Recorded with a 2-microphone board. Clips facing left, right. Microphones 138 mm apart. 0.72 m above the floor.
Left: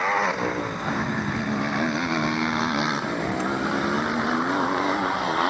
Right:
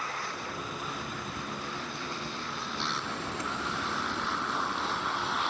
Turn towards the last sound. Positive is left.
turn(degrees=90)